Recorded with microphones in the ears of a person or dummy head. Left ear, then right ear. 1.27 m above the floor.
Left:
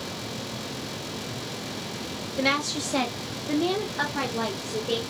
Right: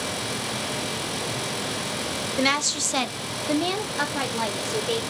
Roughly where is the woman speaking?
Right.